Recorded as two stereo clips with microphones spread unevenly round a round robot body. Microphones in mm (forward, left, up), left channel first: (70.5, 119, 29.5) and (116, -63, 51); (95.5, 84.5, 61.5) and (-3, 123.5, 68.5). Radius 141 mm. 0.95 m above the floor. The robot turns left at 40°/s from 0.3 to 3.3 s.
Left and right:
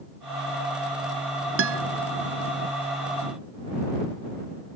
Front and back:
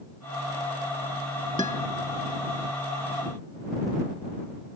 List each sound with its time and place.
1.6 s a guitar: 90° right; by 1.8 s 100° right